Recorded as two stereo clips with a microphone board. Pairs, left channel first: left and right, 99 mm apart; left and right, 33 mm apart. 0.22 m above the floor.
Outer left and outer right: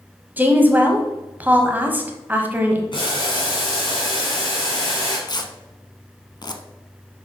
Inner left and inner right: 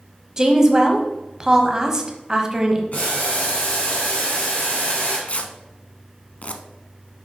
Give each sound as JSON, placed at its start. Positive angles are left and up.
{"t": 0.4, "sound": "a woman speaking", "side_deg": -20, "distance_m": 1.0}
{"t": 2.9, "sound": "boiling", "side_deg": 55, "distance_m": 2.5}
{"t": 5.3, "sound": "tearing paper", "side_deg": 45, "distance_m": 0.6}